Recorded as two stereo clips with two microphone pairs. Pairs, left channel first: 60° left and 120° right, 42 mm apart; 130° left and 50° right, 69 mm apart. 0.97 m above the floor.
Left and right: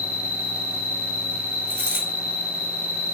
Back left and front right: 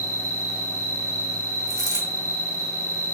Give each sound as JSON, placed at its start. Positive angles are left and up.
{"t": 0.0, "sound": "an insect", "azimuth_deg": 170, "distance_m": 1.6}
{"t": 1.7, "sound": "a dropped coin", "azimuth_deg": 120, "distance_m": 1.1}